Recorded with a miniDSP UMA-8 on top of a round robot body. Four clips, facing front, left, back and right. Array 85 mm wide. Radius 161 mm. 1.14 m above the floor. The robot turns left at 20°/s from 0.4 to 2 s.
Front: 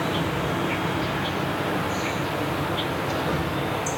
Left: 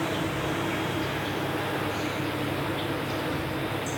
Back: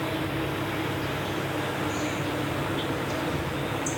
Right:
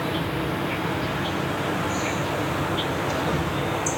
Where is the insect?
15° right, 1.7 m; by 4.0 s 50° right, 1.7 m.